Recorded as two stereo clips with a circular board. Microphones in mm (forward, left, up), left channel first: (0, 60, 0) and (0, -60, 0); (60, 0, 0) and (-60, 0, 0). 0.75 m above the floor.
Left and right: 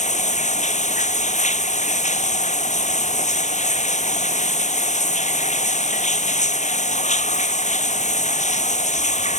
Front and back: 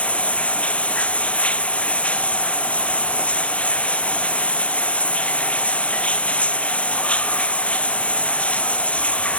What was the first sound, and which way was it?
Running water, 80° left.